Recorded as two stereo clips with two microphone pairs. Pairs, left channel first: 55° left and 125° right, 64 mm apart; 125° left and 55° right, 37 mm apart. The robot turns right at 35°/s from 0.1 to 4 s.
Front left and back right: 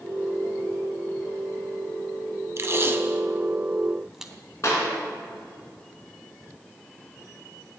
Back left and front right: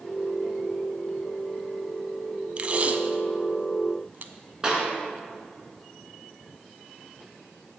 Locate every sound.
2.6 s tape being pulled: 100° right, 0.5 m; by 4.3 s 50° right, 0.5 m
4.6 s a clap: 15° left, 2 m